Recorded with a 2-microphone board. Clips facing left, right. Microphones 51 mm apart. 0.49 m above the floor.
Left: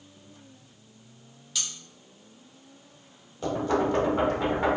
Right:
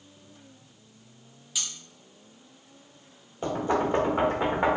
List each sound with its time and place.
1.6 s cutlery clinking: 10° right (ahead or behind), 1.8 m
3.4 s knocking: 25° right (ahead or behind), 1.1 m